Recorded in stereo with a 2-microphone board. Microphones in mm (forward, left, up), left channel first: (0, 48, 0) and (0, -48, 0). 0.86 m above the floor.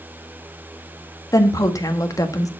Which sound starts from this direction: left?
A woman speaking, at 1.3 s.